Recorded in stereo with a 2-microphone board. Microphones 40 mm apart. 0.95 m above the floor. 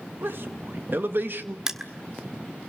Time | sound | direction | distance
0.2 | a man speaking | 55° right (ahead or behind) | 1.6 m
1.7 | crushing | 15° right (ahead or behind) | 1.5 m